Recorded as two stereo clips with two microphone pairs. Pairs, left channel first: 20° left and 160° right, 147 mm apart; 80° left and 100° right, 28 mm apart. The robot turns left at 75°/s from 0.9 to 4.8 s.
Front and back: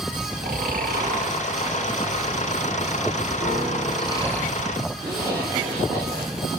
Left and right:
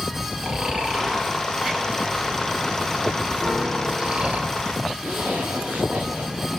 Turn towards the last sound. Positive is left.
turn(degrees=-85)